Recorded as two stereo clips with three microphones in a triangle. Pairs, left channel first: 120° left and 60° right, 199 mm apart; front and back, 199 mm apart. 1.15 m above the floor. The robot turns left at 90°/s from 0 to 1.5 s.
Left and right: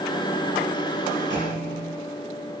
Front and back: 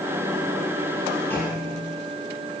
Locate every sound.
1.3 s a clunk: 75° right, 5.5 m; by 1.9 s 95° right, 5.5 m